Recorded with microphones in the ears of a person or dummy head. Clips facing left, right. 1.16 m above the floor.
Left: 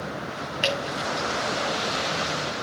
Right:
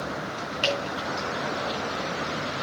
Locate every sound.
0.6 s dripping: 20° left (ahead or behind), 3.5 m